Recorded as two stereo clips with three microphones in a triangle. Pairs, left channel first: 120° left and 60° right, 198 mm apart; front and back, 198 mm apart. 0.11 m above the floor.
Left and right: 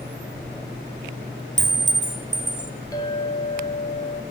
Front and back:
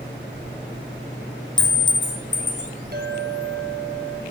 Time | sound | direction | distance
1.6 | a clink | 50° right | 1.0 m
2.9 | a clink | 170° right | 1.3 m